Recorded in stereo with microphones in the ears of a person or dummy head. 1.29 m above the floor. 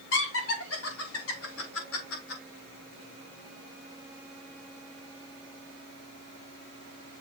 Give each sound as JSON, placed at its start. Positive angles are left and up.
{"t": 0.1, "sound": "laughter", "side_deg": 80, "distance_m": 2.0}